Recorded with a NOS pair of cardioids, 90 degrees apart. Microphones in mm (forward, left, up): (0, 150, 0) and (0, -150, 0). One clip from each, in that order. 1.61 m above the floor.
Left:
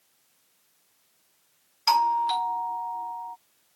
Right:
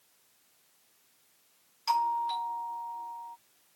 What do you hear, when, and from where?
1.9 s a doorbell: 65° left